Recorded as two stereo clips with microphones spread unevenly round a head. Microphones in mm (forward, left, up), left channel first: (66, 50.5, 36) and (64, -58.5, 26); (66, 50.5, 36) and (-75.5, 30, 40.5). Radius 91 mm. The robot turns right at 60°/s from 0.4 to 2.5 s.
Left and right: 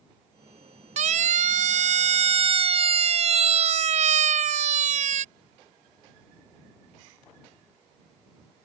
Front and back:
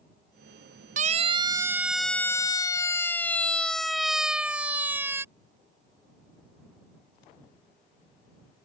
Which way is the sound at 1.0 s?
125° right.